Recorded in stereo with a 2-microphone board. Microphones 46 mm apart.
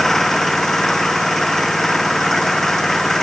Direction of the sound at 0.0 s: 5° left (ahead or behind).